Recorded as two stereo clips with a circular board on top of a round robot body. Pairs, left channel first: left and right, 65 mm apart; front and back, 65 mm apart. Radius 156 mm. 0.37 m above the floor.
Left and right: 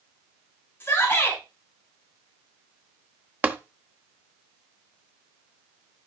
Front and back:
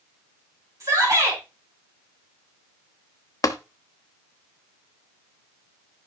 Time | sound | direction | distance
0.8 | a shout | 145° left | 3.5 m
3.4 | tapping | 30° right | 1.2 m